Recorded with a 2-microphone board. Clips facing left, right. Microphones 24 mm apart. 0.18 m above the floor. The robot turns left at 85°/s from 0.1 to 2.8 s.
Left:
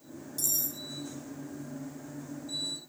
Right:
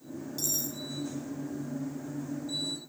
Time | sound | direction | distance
0.4 | cutlery clinking | 140° right | 0.9 m